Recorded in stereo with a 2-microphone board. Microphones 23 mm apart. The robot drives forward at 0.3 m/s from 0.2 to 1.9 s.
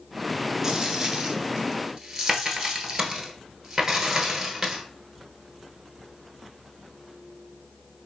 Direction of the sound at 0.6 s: 20° right (ahead or behind).